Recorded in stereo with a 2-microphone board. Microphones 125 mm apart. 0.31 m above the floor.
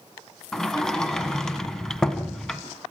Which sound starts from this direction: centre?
A sliding door, at 0.5 s.